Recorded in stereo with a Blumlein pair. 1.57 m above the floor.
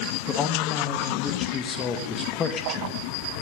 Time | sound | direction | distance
0.3 | a man speaking | 25° left | 2 m